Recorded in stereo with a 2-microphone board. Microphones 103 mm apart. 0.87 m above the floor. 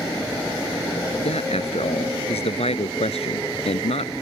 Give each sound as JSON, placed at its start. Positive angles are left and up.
{"t": 1.2, "sound": "a man speaking", "side_deg": 75}